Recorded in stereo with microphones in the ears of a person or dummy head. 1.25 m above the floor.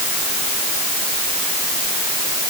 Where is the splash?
I don't hear a splash.